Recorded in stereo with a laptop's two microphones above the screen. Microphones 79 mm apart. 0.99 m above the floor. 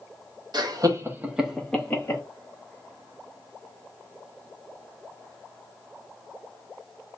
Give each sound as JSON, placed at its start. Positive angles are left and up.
{"t": 0.5, "sound": "laughter", "side_deg": -60, "distance_m": 1.0}